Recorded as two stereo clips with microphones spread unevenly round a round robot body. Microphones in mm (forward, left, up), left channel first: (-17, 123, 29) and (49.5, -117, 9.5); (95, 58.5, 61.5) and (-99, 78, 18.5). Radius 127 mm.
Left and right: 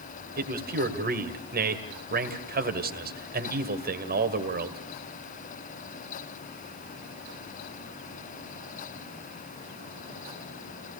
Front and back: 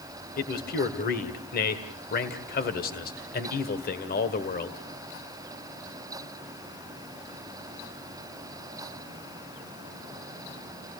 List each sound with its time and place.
0.4 s a man speaking: 45° right, 1.9 m